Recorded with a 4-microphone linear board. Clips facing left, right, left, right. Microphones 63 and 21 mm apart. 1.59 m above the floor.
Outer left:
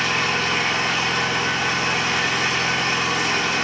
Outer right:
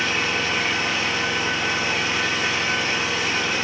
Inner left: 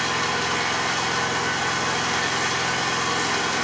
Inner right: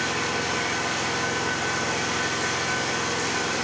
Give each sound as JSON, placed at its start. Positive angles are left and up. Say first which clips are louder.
{"t": 0.0, "sound": "an engine running", "louder": "outer left 2 dB, inner left 3 dB", "side_deg": 75, "distance_m": 10.0}